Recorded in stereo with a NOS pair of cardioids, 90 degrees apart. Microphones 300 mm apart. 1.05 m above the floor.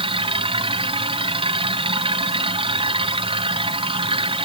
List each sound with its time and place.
0.0 s a machine running: 15° right